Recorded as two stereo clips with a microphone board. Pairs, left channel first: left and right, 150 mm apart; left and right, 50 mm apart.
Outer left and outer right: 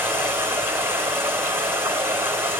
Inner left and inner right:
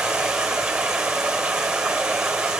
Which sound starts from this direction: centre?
Running water, at 0.0 s.